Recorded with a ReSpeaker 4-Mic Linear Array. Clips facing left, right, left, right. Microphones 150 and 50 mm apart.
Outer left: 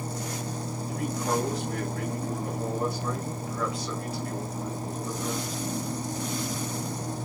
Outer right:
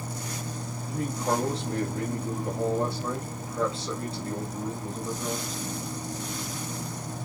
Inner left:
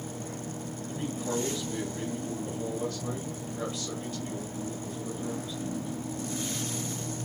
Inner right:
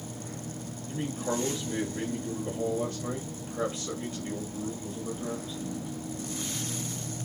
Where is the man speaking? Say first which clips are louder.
Outer right 1 dB, inner right 2 dB; 30° right (ahead or behind), 2 m.